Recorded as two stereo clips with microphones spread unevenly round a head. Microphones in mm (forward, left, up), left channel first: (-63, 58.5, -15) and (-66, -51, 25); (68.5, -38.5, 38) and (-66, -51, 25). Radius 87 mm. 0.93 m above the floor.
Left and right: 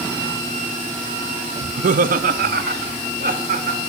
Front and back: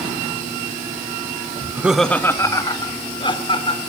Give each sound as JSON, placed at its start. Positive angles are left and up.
{"t": 1.6, "sound": "laughter", "azimuth_deg": -120, "distance_m": 0.9}